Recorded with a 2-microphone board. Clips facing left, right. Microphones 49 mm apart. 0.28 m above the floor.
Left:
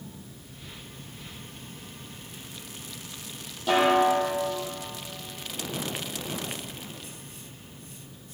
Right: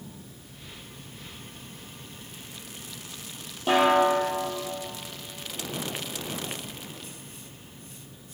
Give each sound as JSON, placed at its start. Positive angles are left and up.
{"t": 3.7, "sound": "a snare drum", "side_deg": -30, "distance_m": 4.5}